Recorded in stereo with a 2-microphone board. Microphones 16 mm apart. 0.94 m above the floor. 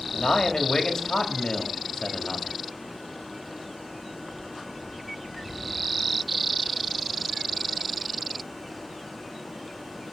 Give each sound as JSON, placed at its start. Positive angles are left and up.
{"t": 0.1, "sound": "a man speaking", "side_deg": 60, "distance_m": 1.7}